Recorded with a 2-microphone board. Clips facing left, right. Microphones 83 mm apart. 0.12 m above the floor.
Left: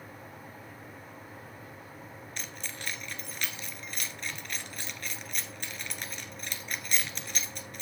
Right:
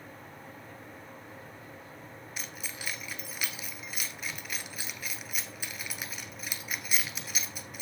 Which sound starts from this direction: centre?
Keys jangling, at 2.4 s.